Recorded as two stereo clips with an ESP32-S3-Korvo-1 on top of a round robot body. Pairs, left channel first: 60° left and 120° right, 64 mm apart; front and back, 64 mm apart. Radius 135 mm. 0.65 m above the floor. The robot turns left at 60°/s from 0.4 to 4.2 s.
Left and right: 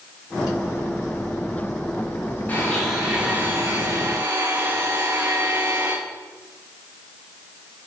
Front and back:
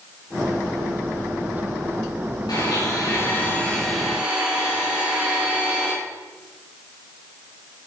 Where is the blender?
5° right, 7.5 m; by 5.9 s 105° right, 7.5 m.